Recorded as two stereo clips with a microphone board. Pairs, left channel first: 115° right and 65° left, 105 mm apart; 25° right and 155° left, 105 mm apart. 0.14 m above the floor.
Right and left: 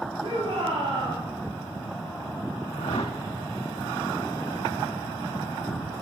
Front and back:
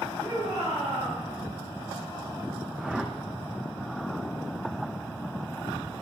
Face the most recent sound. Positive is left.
turn(degrees=-120)